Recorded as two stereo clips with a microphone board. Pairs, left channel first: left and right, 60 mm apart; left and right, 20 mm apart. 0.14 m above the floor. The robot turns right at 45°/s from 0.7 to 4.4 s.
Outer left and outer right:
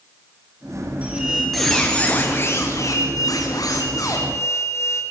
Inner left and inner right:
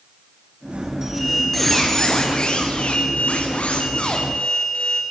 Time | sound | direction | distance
1.0 | a squeak | 25° right | 6 m